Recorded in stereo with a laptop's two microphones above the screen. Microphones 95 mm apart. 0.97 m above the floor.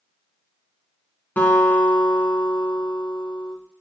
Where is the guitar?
20° left (ahead or behind), 3.5 m.